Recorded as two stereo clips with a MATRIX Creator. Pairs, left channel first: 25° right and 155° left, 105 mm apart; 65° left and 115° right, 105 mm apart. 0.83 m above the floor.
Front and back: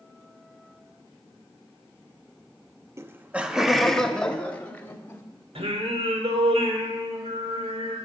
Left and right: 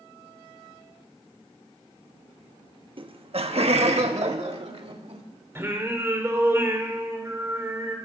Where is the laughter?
140° right, 0.8 m; by 5.2 s 95° right, 1.9 m.